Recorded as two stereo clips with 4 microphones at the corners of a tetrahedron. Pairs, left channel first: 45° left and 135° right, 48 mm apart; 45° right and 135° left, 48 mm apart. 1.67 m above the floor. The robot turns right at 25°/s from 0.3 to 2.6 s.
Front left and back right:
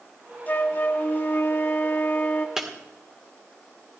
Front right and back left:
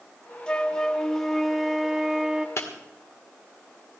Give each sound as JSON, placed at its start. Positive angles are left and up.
{"t": 0.5, "sound": "a flute", "azimuth_deg": 20, "distance_m": 0.8}
{"t": 2.6, "sound": "breaking glass", "azimuth_deg": -55, "distance_m": 2.0}